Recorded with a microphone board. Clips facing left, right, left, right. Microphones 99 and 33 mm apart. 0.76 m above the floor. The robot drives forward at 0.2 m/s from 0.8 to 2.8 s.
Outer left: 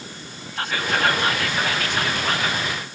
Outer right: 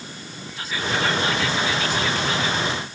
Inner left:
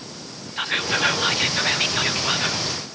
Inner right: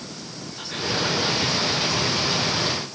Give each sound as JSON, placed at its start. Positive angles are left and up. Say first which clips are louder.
{"t": 0.6, "sound": "whispering", "louder": "outer left 2 dB, inner left 5 dB", "side_deg": 65, "distance_m": 0.8}